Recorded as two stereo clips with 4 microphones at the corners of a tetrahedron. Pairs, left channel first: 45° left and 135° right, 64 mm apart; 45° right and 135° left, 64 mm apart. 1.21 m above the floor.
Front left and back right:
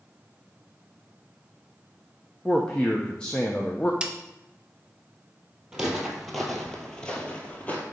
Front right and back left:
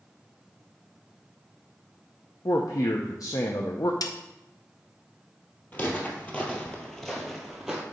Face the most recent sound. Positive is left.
turn(degrees=65)